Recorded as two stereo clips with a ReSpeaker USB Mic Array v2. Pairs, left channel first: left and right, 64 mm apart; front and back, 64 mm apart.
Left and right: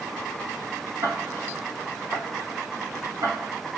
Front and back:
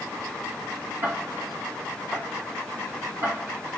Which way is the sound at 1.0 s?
130° right.